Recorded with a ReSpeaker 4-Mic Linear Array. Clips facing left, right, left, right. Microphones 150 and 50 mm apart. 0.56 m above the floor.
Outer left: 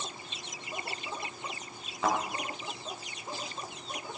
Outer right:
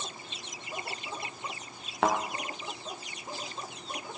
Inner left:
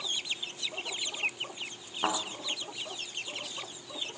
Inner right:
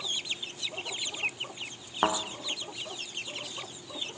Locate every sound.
2.0 s a thud: 75° right (ahead or behind), 4 m